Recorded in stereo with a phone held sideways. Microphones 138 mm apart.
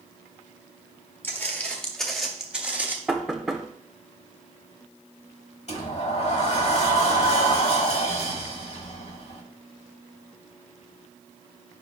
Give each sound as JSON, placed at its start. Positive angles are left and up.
{"t": 1.2, "sound": "footsteps", "side_deg": 15, "distance_m": 2.0}
{"t": 3.1, "sound": "knocking", "side_deg": 0, "distance_m": 1.0}
{"t": 5.7, "sound": "a sliding door", "side_deg": 50, "distance_m": 1.3}